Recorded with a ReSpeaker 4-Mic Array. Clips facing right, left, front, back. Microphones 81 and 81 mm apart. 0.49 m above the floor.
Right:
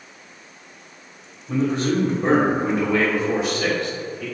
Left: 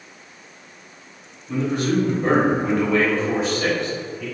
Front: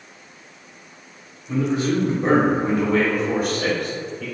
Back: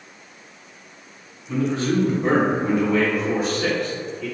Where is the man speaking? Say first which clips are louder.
Right 1 dB, front 1 dB; 80° right, 1.6 m; by 4.2 s 5° right, 2.5 m.